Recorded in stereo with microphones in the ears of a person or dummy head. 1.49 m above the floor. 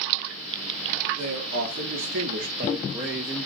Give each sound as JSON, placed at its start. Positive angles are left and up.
{"t": 1.2, "sound": "a man speaking", "side_deg": -75, "distance_m": 1.0}